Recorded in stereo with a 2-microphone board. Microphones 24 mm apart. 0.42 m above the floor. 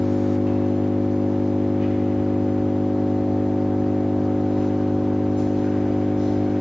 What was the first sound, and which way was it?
An engine running, 50° right (ahead or behind).